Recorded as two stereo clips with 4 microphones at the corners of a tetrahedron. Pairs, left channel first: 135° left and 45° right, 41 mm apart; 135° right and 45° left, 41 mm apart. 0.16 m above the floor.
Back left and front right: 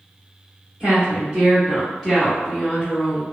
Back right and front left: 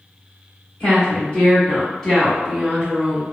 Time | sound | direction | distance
0.8 | a woman speaking | 90° right | 1.8 m